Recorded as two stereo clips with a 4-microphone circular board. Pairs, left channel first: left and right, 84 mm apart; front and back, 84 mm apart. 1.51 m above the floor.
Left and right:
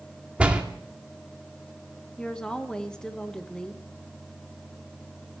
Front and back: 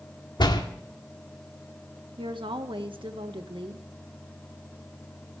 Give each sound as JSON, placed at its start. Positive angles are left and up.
{"t": 0.4, "sound": "a door slam", "azimuth_deg": -15, "distance_m": 2.0}
{"t": 2.2, "sound": "a woman speaking", "azimuth_deg": 170, "distance_m": 1.8}